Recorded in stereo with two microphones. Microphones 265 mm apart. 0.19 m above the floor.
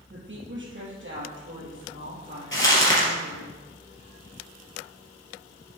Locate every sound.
0.1 s a woman speaking: 45° right (ahead or behind), 4 m
2.5 s crumpling: 45° left (ahead or behind), 3.5 m